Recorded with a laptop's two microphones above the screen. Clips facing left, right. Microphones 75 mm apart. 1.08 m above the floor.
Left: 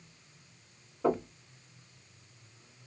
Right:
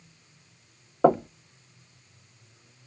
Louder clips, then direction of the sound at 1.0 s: Right 9 dB; 70° right (ahead or behind).